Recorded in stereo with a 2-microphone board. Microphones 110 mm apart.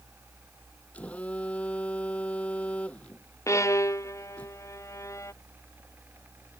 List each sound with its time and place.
0.9 s a phone buzzing: 10° left (ahead or behind)
3.5 s a violin: 30° left (ahead or behind)